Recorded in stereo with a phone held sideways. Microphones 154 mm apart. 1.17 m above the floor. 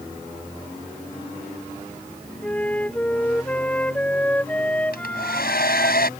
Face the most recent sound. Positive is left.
turn(degrees=80)